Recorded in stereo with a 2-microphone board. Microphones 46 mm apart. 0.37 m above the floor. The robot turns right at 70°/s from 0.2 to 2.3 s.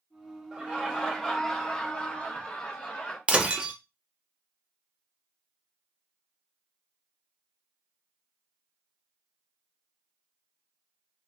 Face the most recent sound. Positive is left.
turn(degrees=-20)  # may be behind; listen again after turning